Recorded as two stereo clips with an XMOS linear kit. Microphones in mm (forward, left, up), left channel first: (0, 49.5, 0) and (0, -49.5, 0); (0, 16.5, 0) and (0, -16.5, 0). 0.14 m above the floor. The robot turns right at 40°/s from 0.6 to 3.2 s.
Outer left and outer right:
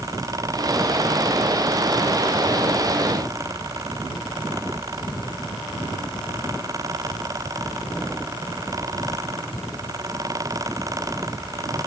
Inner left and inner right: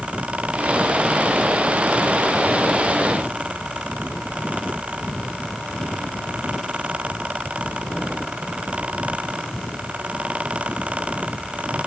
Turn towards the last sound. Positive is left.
No sound to turn to.